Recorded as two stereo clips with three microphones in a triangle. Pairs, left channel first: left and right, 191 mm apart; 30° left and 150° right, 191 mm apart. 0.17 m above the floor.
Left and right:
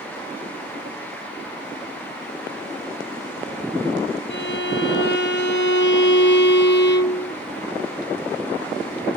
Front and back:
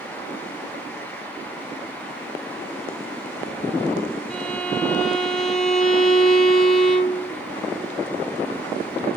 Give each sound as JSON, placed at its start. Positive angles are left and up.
{"t": 4.3, "sound": "a violin", "azimuth_deg": 115, "distance_m": 1.3}